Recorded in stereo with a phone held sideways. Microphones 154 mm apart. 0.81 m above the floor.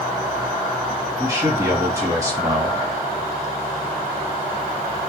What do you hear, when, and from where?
1.2 s a man speaking: 20° right (ahead or behind), 1.3 m